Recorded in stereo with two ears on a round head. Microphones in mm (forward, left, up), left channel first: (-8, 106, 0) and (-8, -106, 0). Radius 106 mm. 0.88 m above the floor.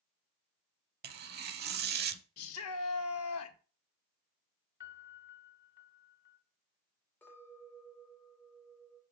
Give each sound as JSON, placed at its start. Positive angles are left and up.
{"t": 1.0, "sound": "tearing paper", "side_deg": -45, "distance_m": 0.9}
{"t": 2.4, "sound": "a shout", "side_deg": 70, "distance_m": 1.3}
{"t": 4.8, "sound": "a piano", "side_deg": 40, "distance_m": 1.2}
{"t": 7.2, "sound": "a clink", "side_deg": 10, "distance_m": 2.0}